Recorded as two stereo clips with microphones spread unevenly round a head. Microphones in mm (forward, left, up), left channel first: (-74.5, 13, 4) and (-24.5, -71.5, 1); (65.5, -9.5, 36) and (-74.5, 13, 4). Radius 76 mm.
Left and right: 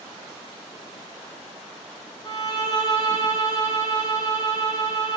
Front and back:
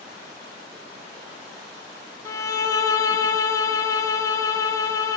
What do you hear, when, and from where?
2.2 s a violin: 55° left, 0.7 m